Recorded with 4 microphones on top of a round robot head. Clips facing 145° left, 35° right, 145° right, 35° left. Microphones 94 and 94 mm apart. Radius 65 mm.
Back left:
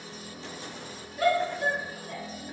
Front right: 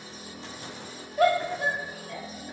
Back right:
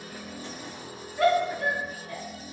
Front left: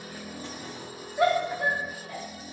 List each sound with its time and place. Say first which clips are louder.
1.2 s a shout: front right 2 dB, back right 1 dB; 35° right, 1.2 m; by 2.2 s 100° left, 1.0 m